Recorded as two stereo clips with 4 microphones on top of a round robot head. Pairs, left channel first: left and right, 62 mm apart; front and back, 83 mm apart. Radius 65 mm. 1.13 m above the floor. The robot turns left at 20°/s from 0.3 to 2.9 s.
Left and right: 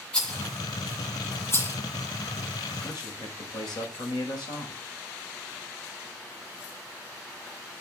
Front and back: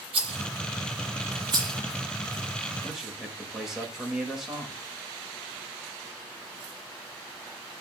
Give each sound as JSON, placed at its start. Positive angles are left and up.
{"t": 0.1, "sound": "a rattle", "azimuth_deg": 165, "distance_m": 9.0}
{"t": 2.8, "sound": "a man speaking", "azimuth_deg": 95, "distance_m": 5.0}